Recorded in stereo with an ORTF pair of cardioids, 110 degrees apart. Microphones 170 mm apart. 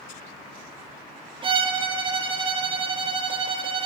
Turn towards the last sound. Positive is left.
turn(degrees=-30)